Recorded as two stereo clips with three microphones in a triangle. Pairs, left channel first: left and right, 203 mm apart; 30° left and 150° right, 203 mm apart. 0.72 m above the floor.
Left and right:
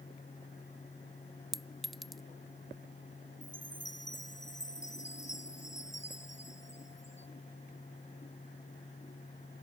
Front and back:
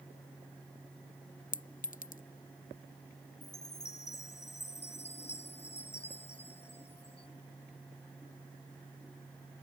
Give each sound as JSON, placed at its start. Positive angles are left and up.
{"t": 1.5, "sound": "a clink", "azimuth_deg": 0}
{"t": 3.4, "sound": "a chime", "azimuth_deg": 65}